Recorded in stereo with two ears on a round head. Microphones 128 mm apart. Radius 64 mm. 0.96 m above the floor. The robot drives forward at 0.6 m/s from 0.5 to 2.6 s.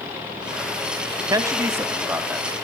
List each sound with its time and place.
1.3 s a man speaking: 25° right (ahead or behind), 0.8 m; by 2.6 s 10° right (ahead or behind), 1.5 m